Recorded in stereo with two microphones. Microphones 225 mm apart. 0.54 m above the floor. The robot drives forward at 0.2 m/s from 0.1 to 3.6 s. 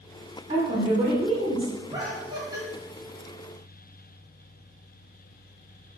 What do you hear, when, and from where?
0.5 s a woman speaking: 30° right (ahead or behind), 0.8 m; by 1.7 s 25° right (ahead or behind), 0.9 m
1.9 s laughter: 20° right (ahead or behind), 0.6 m